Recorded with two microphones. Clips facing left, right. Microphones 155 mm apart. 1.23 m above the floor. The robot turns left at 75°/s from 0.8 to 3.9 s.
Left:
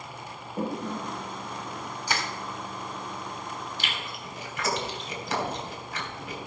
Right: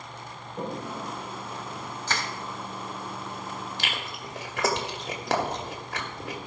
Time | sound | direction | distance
0.6 | a toilet flushing | 85° left | 1.7 m
2.1 | crushing | 15° left (ahead or behind) | 1.5 m
3.8 | chewing | 80° right | 1.9 m